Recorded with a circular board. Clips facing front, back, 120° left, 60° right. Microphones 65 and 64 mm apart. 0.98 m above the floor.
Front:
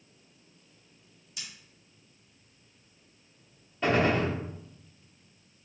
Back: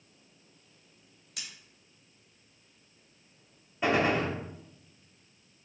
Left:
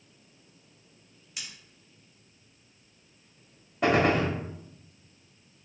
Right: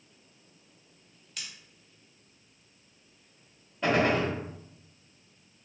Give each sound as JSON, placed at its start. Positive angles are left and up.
{"t": 1.4, "sound": "scissors", "azimuth_deg": -165, "distance_m": 2.5}
{"t": 3.8, "sound": "a gunshot", "azimuth_deg": 105, "distance_m": 1.4}